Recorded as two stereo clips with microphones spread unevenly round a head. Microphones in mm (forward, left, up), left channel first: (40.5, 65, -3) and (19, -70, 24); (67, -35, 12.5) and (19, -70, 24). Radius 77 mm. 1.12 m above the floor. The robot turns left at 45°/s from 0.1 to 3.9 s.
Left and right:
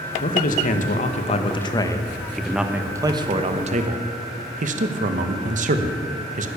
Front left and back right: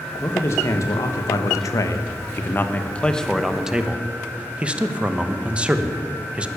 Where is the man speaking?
95° left, 1.0 m; by 6.5 s 70° right, 1.0 m.